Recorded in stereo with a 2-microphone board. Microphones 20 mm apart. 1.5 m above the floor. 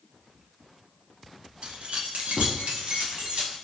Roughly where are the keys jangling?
Right.